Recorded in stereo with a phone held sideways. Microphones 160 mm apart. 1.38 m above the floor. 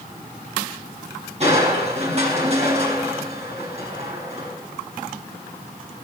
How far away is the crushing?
About 6 m.